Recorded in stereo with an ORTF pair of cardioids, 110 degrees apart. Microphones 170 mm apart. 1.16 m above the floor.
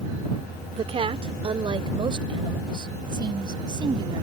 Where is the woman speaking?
35° right; by 4.2 s 25° right.